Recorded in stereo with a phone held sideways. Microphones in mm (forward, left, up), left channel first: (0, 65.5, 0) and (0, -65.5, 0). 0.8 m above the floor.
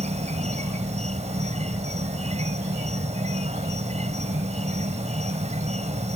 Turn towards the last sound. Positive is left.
turn(degrees=-60)  # may be behind; listen again after turning